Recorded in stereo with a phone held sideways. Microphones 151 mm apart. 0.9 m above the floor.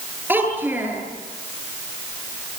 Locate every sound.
0.3 s a child speaking: 15° right (ahead or behind), 9 m